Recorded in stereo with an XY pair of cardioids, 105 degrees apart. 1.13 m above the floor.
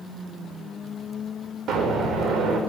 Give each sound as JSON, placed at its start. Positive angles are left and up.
{"t": 1.7, "sound": "an explosion", "azimuth_deg": -70, "distance_m": 3.0}